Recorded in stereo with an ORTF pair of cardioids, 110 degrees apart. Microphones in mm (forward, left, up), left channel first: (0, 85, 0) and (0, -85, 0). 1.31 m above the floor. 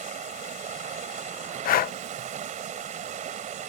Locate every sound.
0.0 s running water: 50° right
1.6 s breathing: 60° left